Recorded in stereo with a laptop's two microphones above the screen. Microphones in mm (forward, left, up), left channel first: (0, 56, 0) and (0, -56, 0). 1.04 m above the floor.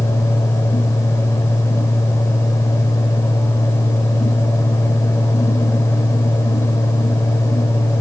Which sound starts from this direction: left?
A fan, at 0.0 s.